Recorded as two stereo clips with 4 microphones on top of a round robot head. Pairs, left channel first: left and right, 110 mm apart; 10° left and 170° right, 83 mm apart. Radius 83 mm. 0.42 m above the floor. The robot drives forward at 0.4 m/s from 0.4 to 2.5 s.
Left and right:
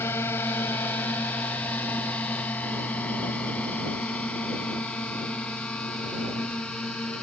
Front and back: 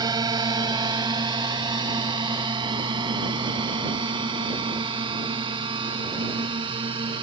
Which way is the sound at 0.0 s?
160° left.